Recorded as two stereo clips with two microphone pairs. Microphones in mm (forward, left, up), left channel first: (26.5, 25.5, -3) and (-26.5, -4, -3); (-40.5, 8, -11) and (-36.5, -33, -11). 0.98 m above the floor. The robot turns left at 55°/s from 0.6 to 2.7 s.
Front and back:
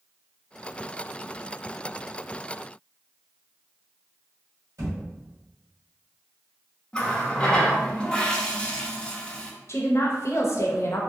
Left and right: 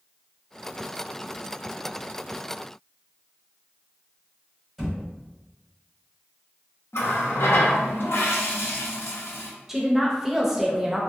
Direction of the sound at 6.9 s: 105° left.